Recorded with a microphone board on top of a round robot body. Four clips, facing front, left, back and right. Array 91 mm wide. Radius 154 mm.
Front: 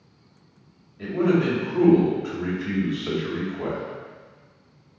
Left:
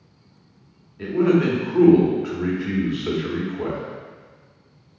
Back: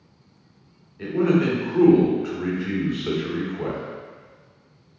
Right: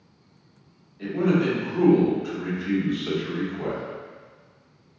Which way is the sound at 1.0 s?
125° left.